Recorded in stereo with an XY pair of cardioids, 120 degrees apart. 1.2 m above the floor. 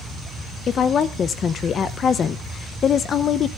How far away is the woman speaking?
About 0.6 m.